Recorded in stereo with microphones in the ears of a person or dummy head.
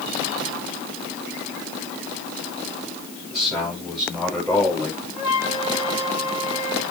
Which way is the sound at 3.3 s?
Centre (ahead or behind).